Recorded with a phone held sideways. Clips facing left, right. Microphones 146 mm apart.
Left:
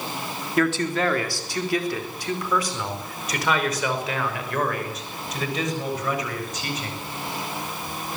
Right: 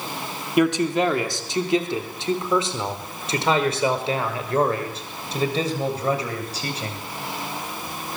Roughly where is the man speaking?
Centre.